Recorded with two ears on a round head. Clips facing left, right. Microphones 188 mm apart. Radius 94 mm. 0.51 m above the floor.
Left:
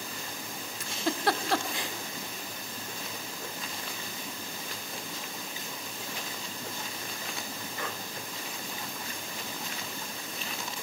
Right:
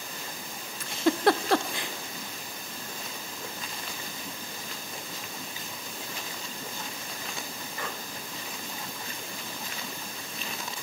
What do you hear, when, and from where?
0.8 s a giggle: 50° right (ahead or behind), 0.8 m